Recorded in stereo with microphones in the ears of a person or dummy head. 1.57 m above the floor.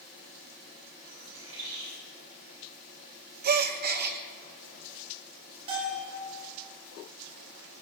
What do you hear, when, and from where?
1.1 s a bird: 85° right, 8 m
3.4 s a gasp: 45° right (ahead or behind), 0.8 m
5.7 s a bell: 35° right (ahead or behind), 6 m